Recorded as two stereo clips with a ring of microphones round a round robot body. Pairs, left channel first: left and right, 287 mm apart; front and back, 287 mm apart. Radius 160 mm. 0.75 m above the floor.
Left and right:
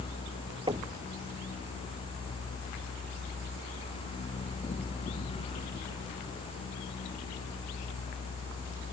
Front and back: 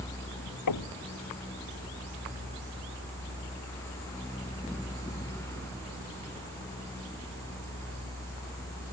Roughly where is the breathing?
I don't hear breathing.